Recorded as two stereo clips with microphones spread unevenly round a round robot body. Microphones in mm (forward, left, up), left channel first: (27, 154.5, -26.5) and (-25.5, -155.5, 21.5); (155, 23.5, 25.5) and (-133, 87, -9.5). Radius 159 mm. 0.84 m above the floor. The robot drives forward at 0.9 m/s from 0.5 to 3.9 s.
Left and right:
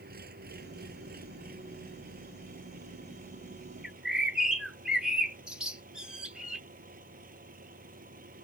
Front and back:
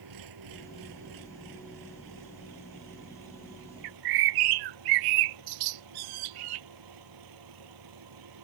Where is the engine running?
160° right; by 8.4 s 165° right.